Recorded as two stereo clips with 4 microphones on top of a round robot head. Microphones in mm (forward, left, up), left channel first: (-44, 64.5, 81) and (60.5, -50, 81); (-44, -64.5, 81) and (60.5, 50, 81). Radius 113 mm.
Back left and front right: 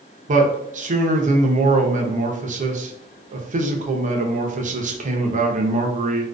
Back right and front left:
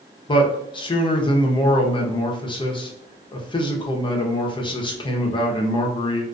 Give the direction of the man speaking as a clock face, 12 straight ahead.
3 o'clock.